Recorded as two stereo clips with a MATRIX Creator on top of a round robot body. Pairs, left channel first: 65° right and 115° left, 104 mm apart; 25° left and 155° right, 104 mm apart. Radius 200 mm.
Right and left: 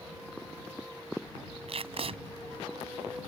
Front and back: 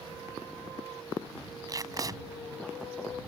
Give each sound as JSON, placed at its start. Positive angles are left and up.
{"t": 1.7, "sound": "tape being pulled", "azimuth_deg": 145}